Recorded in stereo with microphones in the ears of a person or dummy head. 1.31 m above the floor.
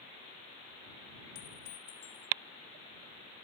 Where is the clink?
75° left (ahead or behind).